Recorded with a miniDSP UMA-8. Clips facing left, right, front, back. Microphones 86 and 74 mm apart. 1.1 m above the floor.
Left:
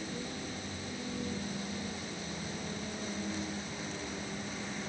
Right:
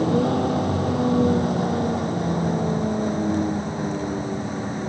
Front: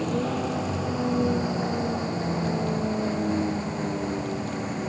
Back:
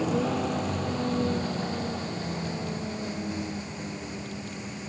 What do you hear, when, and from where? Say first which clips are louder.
0.0 s a vehicle: right 20 dB, even; 90° right; by 4.9 s 45° right